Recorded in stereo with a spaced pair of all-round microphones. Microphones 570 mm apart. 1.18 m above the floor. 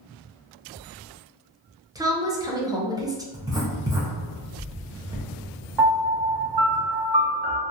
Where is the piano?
45° right (ahead or behind), 0.6 m.